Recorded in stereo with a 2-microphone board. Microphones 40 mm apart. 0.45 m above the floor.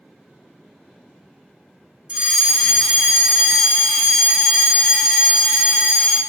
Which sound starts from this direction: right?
A fire alarm, at 2.1 s.